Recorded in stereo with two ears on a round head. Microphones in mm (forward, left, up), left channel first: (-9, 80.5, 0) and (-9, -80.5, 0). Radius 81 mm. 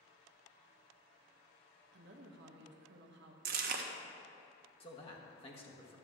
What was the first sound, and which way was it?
A woman speaking, 65° right (ahead or behind).